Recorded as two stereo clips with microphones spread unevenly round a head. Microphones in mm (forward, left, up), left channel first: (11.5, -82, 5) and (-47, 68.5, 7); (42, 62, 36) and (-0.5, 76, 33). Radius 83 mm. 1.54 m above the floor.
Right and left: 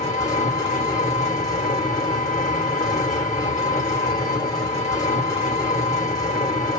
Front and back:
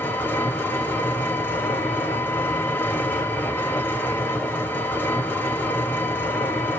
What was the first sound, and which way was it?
An engine running, 5° right.